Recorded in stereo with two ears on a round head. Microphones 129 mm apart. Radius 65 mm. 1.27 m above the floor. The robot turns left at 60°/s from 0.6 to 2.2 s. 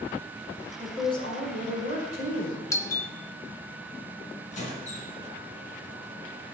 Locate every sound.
0.8 s a woman speaking: 165° left, 5.5 m; by 2.6 s 80° left, 5.5 m
2.7 s a doorbell: 20° left (ahead or behind), 0.8 m
4.5 s a squeak: 55° left (ahead or behind), 3.5 m